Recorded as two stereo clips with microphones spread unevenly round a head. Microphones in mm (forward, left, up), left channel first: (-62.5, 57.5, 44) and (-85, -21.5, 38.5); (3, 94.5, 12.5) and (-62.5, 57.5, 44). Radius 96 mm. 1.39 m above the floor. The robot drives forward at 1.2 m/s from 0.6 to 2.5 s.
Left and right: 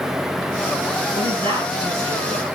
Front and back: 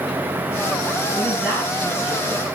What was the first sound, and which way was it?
A woman speaking, 110° right.